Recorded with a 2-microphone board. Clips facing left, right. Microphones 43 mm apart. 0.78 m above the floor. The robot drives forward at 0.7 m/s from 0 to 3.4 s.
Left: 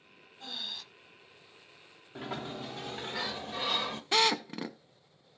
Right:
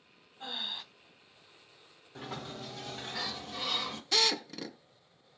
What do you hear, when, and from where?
0.4 s breathing: 25° right (ahead or behind), 0.6 m; by 0.8 s 20° right (ahead or behind), 0.7 m
2.1 s a sliding door: 20° left (ahead or behind), 1.2 m
4.1 s a drill: 25° left (ahead or behind), 0.7 m